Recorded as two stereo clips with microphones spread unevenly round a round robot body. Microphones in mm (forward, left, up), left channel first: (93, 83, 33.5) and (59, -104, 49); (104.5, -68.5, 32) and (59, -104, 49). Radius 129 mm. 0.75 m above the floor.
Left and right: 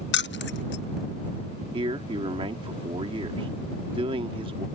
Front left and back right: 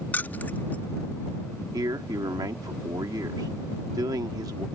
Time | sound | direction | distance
0.1 | keys jangling | 95° left | ?
1.7 | a man speaking | 165° right | ?